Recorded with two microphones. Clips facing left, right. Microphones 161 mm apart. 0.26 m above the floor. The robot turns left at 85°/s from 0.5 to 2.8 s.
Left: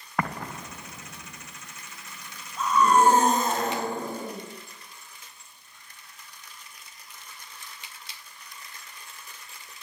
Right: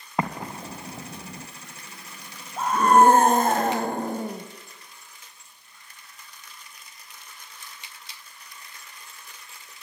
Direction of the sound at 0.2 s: 20° right (ahead or behind).